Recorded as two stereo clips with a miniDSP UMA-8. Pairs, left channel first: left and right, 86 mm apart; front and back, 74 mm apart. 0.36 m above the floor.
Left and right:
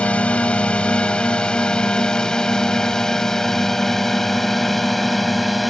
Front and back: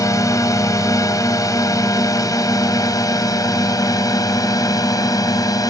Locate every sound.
0.0 s a drone: 20° left; by 5.7 s straight ahead